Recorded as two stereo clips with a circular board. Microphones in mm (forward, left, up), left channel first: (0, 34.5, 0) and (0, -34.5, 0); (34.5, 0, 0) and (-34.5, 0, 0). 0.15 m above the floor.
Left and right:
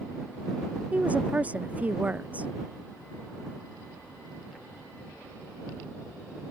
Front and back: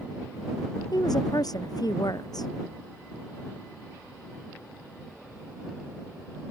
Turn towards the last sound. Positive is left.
turn(degrees=-25)